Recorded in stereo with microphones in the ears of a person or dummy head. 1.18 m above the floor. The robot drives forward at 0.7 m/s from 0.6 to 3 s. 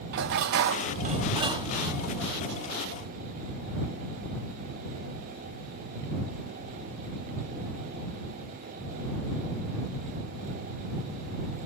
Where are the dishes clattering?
65° right (ahead or behind), 0.5 m; by 2.1 s 20° right (ahead or behind), 1.4 m.